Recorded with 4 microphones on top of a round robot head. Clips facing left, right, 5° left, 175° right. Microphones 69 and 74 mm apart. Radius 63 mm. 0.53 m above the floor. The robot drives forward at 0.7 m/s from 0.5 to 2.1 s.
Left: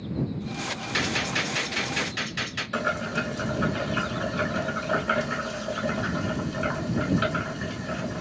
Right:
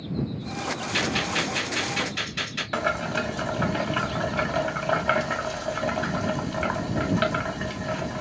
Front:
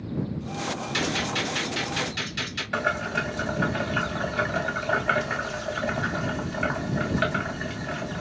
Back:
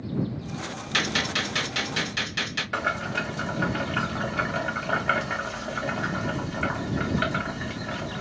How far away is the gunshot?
About 0.5 m.